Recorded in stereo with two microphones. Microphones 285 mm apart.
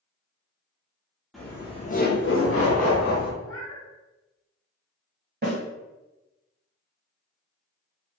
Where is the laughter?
Centre (ahead or behind), 0.6 m; by 3.3 s 70° left (ahead or behind), 1.1 m.